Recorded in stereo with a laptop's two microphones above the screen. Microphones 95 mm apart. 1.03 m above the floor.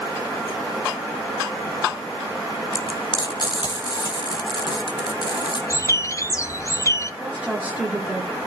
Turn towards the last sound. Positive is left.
turn(degrees=-15)  # may be behind; listen again after turning